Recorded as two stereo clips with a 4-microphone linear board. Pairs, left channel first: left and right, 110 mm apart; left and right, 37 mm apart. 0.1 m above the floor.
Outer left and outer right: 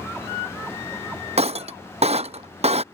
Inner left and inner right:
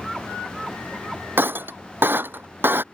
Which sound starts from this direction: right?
Breaking glass, at 1.4 s.